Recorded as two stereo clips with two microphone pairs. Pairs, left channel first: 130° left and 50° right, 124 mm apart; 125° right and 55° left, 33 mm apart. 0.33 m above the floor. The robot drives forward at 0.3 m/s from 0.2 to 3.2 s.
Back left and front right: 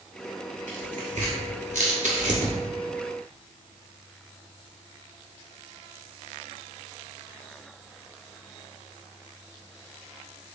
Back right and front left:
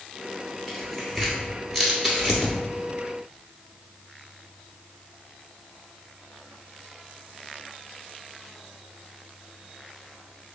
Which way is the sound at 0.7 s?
35° right.